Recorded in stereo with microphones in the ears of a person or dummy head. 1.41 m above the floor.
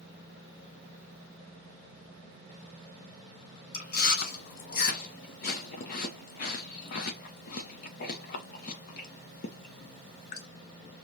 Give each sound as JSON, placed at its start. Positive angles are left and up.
{"t": 3.7, "sound": "chewing", "side_deg": 50, "distance_m": 0.7}